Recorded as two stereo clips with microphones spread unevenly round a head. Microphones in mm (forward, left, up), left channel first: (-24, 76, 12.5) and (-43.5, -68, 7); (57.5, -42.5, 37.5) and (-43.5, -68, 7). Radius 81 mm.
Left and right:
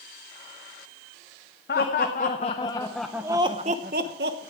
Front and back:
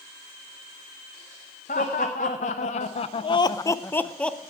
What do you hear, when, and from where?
1.7 s laughter: 45° left, 0.9 m; by 4.5 s 70° right, 0.9 m